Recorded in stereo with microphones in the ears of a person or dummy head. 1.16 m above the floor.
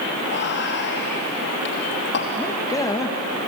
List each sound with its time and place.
0.2 s whispering: 60° left (ahead or behind), 2.5 m
2.4 s a man speaking: 20° left (ahead or behind), 1.5 m